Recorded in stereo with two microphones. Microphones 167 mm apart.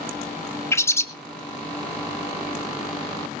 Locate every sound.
0.7 s a bird: 15° left (ahead or behind), 1.0 m